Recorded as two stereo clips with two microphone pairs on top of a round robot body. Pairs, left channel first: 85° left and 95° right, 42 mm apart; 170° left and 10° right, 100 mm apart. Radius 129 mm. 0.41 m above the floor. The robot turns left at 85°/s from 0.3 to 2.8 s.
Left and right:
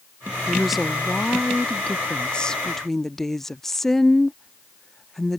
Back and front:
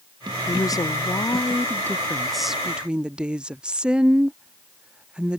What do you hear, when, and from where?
0.5 s a woman speaking: 150° right; by 5.4 s 10° left